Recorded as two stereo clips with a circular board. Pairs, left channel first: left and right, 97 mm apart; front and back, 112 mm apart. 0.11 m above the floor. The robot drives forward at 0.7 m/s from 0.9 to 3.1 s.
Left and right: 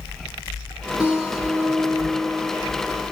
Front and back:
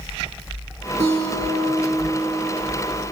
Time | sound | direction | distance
1.0 | a guitar | 165° right | 2.5 m